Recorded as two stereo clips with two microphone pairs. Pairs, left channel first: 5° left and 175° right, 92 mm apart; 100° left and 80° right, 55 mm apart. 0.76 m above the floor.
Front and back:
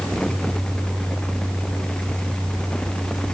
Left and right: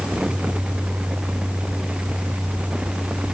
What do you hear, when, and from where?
Only background noise.